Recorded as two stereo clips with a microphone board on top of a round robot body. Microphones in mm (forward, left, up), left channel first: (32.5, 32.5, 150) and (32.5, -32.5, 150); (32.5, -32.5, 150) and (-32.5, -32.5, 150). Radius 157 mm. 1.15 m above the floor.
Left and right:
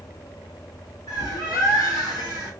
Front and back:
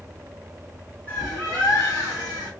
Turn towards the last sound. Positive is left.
turn(degrees=115)